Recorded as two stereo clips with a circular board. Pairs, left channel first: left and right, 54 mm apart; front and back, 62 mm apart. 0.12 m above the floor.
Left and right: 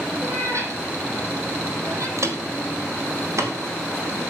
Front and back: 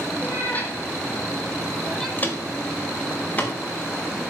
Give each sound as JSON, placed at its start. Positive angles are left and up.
{"t": 0.2, "sound": "a cat meowing", "azimuth_deg": -60, "distance_m": 2.5}
{"t": 2.2, "sound": "footsteps", "azimuth_deg": -60, "distance_m": 2.5}